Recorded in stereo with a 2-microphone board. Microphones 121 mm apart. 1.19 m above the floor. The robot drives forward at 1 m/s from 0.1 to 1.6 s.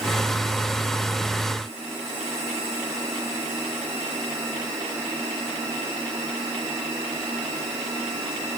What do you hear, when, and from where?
Only background noise.